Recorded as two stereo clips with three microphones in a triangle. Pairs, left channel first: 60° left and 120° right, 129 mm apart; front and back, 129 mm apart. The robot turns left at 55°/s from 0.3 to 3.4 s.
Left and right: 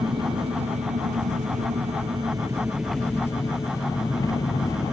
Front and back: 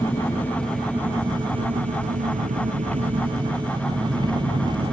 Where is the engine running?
65° right; by 4.9 s 125° left.